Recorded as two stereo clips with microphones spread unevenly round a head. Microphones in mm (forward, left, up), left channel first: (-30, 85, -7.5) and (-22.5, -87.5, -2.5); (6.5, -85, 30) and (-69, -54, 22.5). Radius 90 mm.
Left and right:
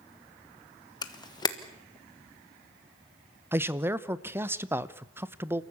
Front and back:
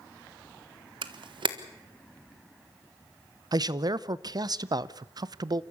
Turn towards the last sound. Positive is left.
turn(degrees=-165)